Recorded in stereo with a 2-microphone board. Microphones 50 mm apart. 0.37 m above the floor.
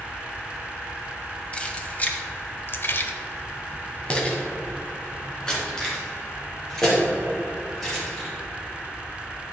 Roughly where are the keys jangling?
Centre.